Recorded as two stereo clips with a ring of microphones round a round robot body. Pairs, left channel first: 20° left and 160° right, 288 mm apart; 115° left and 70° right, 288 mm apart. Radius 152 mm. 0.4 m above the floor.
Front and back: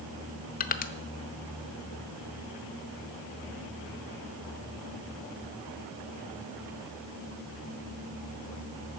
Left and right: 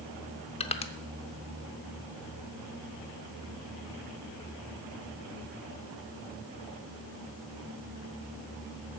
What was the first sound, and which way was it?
Crushing, 60° left.